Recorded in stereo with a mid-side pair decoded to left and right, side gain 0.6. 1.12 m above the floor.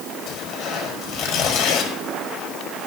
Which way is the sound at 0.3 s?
70° left.